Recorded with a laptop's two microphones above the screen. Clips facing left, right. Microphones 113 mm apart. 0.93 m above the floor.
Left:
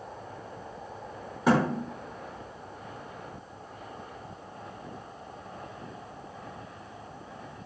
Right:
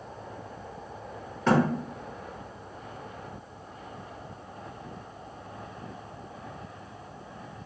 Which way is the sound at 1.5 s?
10° left (ahead or behind).